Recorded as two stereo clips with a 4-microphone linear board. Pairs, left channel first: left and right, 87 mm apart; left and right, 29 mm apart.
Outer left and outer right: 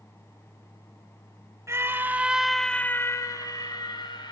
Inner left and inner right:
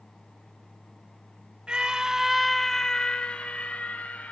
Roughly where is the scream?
Right.